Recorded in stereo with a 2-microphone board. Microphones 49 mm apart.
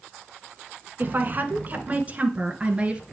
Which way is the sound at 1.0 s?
45° right (ahead or behind).